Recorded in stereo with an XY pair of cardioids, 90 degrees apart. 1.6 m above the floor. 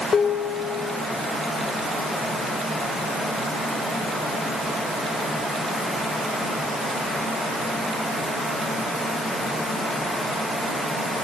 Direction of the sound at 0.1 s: 50° left.